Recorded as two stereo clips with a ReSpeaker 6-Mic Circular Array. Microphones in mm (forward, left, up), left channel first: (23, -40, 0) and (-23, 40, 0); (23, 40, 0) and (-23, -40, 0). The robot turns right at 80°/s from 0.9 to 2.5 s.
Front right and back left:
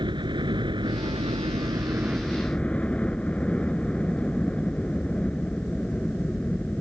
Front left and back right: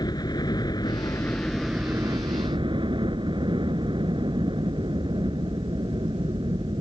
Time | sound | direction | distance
0.0 | a helicopter | 95° left | ?